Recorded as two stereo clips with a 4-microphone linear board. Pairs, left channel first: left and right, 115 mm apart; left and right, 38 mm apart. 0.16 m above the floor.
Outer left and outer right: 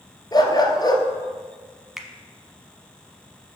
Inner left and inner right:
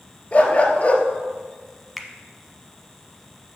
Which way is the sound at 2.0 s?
Centre (ahead or behind).